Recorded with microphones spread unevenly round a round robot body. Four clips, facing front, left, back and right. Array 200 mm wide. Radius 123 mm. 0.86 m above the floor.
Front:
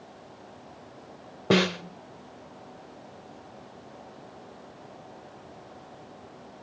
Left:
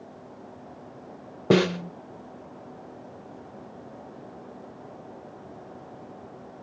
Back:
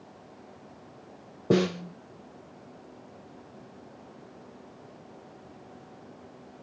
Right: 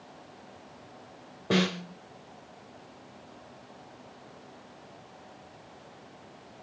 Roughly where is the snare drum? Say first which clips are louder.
Left 7 dB, even; left.